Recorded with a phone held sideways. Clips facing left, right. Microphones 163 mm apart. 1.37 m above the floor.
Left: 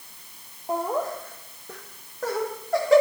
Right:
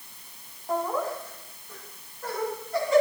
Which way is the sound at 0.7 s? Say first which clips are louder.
Left 1 dB; 20° left (ahead or behind).